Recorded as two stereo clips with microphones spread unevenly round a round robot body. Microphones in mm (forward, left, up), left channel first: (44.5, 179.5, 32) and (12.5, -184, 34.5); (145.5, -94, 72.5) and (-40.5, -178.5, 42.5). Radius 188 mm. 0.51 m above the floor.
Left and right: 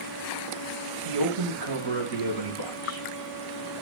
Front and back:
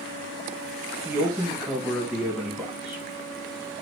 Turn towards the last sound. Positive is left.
turn(degrees=-70)